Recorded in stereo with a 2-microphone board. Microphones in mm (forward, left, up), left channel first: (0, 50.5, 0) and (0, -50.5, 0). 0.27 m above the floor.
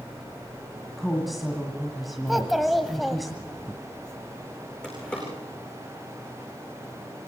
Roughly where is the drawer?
Centre.